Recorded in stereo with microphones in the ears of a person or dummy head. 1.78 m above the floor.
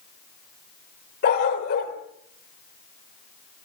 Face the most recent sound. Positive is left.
turn(degrees=55)  # may be behind; listen again after turning